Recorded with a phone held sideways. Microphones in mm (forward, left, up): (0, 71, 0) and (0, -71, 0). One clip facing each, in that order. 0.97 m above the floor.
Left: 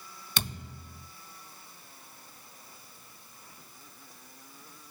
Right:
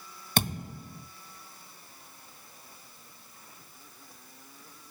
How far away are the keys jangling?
I don't hear keys jangling.